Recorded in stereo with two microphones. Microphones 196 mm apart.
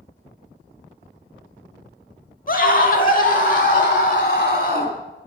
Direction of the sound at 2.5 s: 45° left (ahead or behind).